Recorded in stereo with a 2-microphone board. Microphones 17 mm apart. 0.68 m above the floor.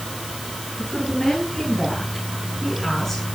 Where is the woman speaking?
35° left (ahead or behind), 8.5 m; by 3.2 s 15° left (ahead or behind), 7.5 m.